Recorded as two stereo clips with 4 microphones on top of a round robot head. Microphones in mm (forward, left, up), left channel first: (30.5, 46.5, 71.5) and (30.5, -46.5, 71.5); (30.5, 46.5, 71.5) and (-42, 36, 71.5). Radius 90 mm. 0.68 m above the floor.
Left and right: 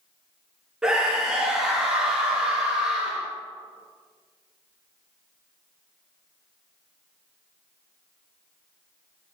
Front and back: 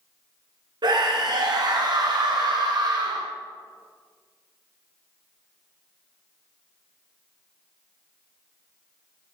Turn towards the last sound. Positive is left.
turn(degrees=-170)